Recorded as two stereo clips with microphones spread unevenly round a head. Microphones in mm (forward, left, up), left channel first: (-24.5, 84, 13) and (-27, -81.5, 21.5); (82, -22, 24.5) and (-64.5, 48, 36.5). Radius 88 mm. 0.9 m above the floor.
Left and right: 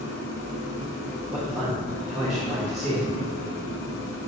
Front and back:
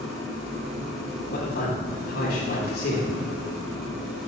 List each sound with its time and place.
0.0 s an engine running: 65° left, 1.9 m
1.3 s a man speaking: 5° right, 1.5 m